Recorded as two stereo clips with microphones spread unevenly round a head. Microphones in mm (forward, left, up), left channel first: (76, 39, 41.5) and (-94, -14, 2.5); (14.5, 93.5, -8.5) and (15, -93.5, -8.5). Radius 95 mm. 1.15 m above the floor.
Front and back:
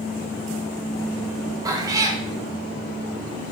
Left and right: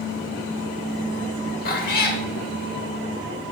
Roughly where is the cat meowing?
Behind left.